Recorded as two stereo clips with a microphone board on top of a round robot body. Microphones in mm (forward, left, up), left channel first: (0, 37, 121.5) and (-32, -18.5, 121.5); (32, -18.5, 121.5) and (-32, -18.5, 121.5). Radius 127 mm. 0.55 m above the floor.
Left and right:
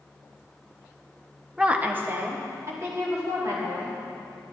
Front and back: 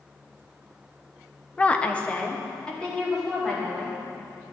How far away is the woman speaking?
About 0.9 m.